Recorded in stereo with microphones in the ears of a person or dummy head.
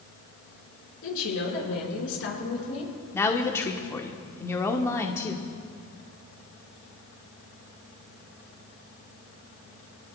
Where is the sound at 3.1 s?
15° left (ahead or behind), 1.0 m.